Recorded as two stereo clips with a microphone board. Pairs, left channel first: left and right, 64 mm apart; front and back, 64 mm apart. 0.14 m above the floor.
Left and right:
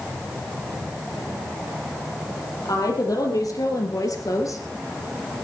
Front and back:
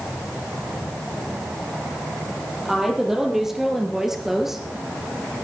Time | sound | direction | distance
2.6 | a woman speaking | 95° left | 4.5 m